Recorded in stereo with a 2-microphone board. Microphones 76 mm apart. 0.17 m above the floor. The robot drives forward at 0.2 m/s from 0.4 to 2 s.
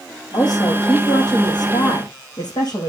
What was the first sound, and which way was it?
A woman speaking, 65° left (ahead or behind).